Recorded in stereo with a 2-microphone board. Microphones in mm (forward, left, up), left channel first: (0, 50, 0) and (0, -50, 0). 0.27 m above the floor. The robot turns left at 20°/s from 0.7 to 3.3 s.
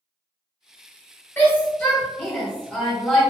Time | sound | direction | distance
1.4 | a shout | 20° left (ahead or behind) | 1.7 m